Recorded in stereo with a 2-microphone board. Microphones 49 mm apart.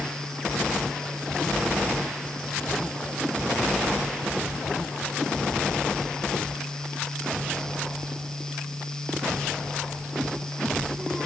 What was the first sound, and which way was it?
Only background noise.